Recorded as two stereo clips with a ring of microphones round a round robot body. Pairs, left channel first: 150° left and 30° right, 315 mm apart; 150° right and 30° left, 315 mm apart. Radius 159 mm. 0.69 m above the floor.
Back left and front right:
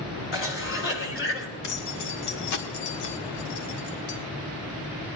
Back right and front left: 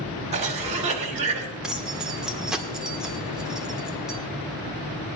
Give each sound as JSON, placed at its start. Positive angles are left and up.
{"t": 0.3, "sound": "a cough", "azimuth_deg": 100, "distance_m": 2.5}
{"t": 1.6, "sound": "keys jangling", "azimuth_deg": 120, "distance_m": 1.6}